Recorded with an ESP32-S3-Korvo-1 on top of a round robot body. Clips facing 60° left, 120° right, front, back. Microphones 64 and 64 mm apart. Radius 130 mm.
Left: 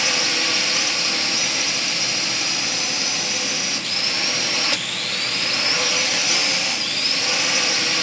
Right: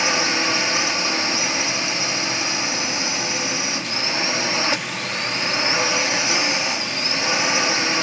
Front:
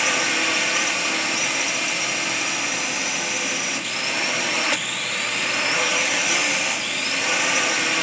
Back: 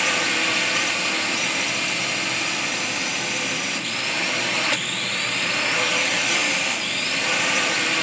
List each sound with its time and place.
0.0 s a drone: 85° right